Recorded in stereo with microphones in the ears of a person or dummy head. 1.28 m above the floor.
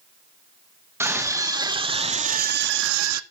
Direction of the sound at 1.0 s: 10° right (ahead or behind).